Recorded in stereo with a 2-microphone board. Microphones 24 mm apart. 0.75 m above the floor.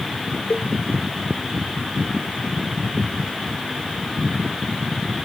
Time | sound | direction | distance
0.5 | a cowbell | 80° left | ?